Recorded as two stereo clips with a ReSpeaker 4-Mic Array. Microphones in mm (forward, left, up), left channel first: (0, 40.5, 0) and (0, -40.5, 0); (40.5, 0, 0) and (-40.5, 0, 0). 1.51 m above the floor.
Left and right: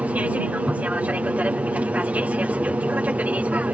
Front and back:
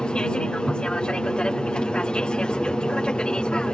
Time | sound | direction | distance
0.0 | an aircraft | 55° right | ?